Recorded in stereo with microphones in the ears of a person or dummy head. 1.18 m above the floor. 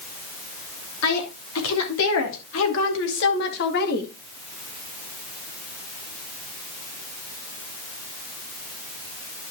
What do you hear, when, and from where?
1.0 s a woman speaking: 80° left, 3.5 m; by 4.1 s 50° left (ahead or behind), 1.8 m